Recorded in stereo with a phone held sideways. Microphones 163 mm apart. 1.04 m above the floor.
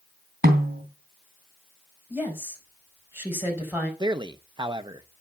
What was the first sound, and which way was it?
A snare drum, 75° right (ahead or behind).